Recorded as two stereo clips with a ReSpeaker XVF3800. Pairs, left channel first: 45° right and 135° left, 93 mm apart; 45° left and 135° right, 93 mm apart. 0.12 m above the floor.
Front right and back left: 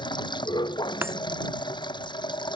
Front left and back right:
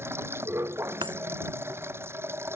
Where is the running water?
75° right.